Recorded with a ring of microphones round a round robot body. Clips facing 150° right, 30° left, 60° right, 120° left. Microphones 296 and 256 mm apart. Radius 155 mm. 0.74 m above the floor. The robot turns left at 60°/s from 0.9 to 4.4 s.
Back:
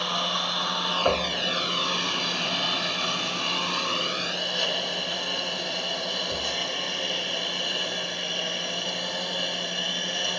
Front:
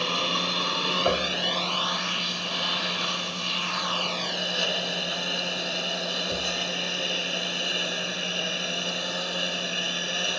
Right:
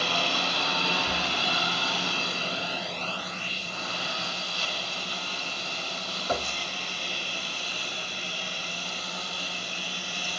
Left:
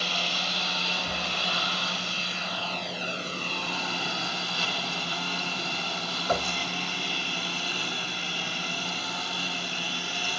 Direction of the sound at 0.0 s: 30° right.